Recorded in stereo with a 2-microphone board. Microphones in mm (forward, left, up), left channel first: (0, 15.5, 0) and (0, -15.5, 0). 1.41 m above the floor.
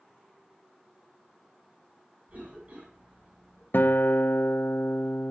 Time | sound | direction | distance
2.3 | a cough | 45° right (ahead or behind) | 7 m
3.7 | a guitar | 80° left | 0.9 m